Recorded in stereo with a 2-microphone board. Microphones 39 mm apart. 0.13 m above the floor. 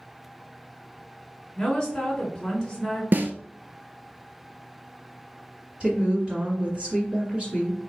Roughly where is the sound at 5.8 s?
Right.